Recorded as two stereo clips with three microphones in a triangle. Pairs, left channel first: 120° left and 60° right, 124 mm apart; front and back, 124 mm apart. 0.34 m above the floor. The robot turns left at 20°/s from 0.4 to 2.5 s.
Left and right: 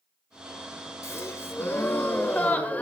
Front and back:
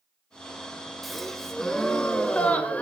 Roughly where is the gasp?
Left.